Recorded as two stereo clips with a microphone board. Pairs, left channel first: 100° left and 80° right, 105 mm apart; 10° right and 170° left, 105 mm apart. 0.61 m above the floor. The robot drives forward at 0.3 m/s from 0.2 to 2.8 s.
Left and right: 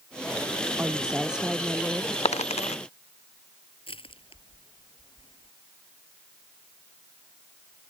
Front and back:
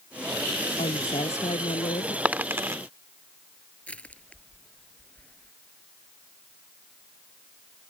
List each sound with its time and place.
0.8 s a woman speaking: 5° left
2.2 s a dropped coin: 95° left; by 2.8 s 110° left
3.9 s crushing: 70° left